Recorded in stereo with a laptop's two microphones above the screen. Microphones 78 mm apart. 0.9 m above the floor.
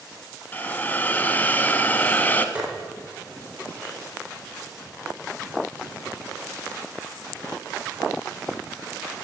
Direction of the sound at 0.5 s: 20° left (ahead or behind).